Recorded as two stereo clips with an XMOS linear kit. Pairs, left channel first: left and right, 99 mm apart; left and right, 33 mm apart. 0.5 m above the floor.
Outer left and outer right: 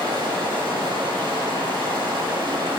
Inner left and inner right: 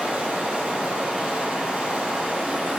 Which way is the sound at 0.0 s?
45° right (ahead or behind).